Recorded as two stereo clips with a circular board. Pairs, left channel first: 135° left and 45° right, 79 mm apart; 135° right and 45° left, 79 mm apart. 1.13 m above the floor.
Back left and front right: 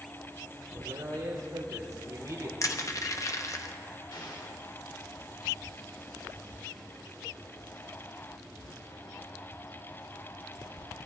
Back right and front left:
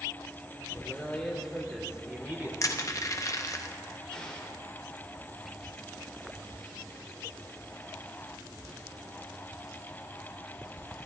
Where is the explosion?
145° left, 2.5 m.